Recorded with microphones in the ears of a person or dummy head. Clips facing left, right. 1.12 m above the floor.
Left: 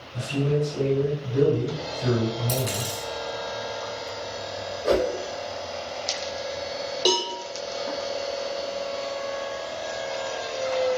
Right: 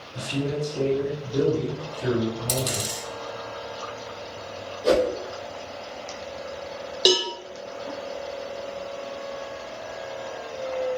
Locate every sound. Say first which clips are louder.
0.1 s a man speaking: left 3 dB; 25° right (ahead or behind), 2.0 m
2.5 s a dropped coin: left 1 dB; 40° right (ahead or behind), 2.0 m
4.8 s a whoosh: right 2 dB; 50° right (ahead or behind), 0.8 m
7.0 s a cowbell: right 3 dB; 15° right (ahead or behind), 0.5 m